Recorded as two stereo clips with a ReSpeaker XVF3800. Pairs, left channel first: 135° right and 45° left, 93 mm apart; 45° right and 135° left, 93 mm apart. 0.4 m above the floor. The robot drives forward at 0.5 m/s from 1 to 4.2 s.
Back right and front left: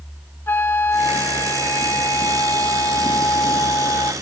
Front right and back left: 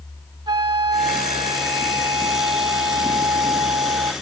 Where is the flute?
160° left; by 4.1 s 175° left.